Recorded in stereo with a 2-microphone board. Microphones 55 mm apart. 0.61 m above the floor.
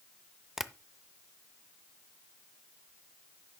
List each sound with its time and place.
0.6 s tapping: 10° right (ahead or behind), 0.6 m